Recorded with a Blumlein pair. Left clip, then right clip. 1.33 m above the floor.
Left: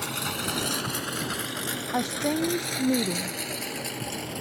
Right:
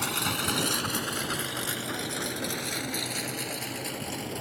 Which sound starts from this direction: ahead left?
A woman speaking, at 1.9 s.